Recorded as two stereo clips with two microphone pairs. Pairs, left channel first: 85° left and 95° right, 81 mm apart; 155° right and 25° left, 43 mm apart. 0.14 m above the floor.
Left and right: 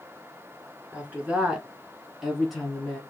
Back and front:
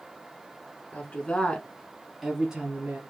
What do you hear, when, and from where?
0.9 s a woman speaking: 160° right, 1.4 m; by 3.0 s 5° left, 1.3 m